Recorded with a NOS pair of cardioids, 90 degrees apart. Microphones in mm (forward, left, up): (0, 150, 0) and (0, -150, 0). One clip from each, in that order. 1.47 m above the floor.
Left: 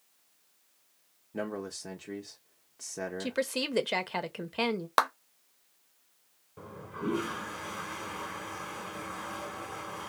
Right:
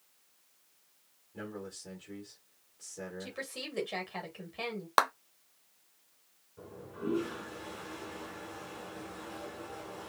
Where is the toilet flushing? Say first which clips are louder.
Left 3 dB; 65° left, 1.6 m.